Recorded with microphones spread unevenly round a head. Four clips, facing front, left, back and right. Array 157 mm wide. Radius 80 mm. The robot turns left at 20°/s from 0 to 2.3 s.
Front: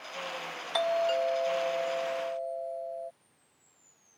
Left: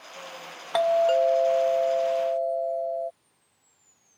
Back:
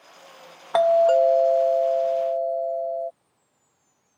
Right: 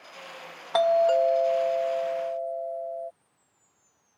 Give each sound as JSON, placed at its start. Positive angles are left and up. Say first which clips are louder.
{"t": 0.7, "sound": "a doorbell", "louder": "even, back 11 dB", "azimuth_deg": -175}